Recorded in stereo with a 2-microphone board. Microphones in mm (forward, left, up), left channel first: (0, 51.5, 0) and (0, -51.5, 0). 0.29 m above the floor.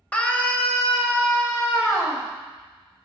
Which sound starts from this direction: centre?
A scream, at 0.1 s.